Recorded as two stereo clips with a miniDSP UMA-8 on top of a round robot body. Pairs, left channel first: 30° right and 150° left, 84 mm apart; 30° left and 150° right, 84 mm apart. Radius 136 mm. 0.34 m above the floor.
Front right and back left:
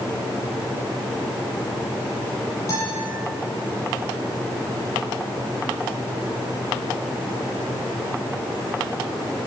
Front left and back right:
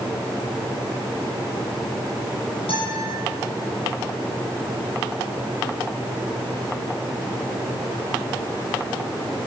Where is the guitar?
25° left, 10 m.